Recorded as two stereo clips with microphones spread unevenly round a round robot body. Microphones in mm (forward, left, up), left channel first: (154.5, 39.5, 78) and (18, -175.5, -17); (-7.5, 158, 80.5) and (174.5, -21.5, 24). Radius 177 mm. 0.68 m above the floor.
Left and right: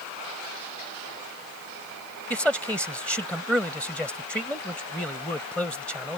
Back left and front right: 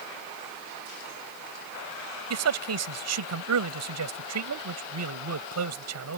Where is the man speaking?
30° right.